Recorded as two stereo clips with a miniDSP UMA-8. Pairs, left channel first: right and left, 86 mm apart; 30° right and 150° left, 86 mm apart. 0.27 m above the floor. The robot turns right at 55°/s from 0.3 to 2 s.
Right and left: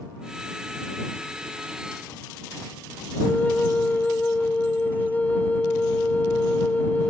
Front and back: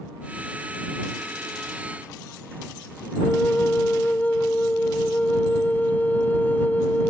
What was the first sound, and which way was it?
A flute, 55° right.